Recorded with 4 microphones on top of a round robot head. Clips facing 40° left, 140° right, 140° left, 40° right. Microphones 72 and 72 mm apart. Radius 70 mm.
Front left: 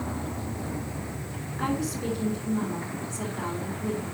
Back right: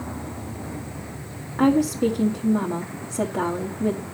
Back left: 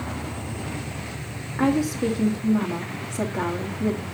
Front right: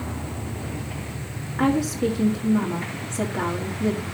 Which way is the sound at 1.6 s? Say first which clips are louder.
Back right 11 dB, even; 135° right.